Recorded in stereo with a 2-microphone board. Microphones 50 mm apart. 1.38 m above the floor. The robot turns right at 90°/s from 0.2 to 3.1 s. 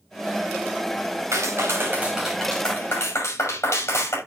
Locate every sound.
1.3 s a clap: 90° right, 6 m; by 4.2 s 70° left, 6 m